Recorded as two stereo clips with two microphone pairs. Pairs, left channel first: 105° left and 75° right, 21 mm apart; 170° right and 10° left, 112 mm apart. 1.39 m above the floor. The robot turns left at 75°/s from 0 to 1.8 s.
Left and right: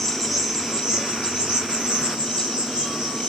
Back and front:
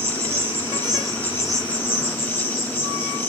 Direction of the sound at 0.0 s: 30° left.